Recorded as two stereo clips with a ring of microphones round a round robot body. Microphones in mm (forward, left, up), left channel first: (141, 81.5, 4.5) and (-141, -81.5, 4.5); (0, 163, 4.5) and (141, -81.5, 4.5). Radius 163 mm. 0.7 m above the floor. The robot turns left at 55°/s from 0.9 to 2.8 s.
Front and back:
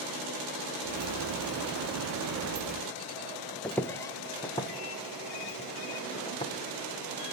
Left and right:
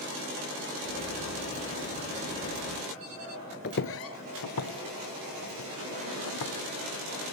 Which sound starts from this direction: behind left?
Footsteps, at 3.6 s.